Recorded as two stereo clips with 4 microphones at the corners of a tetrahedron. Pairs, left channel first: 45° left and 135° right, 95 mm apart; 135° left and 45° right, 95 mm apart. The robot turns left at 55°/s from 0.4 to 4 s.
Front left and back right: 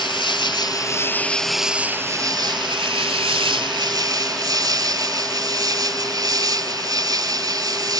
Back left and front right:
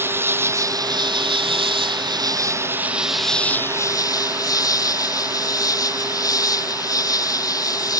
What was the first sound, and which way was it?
An insect, 20° left.